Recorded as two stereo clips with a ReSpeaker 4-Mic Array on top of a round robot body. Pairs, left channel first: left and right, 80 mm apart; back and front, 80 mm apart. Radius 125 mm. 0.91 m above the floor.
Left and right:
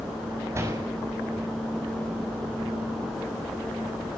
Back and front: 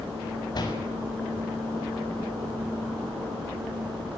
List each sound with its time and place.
0.5 s a door slam: 145° right, 6.5 m